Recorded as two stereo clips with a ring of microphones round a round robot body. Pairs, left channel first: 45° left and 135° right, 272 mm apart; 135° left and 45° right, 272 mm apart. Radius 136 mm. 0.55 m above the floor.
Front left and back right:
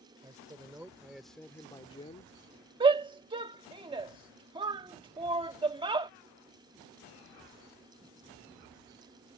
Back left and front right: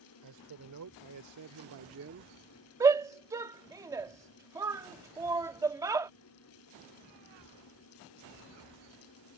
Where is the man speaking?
60° right; by 2.4 s 5° right.